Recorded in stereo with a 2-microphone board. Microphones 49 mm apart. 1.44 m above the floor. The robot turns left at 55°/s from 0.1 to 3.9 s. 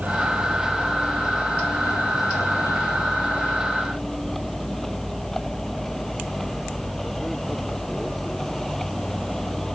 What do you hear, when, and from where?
0.0 s a vehicle: 145° right; by 9.8 s 5° left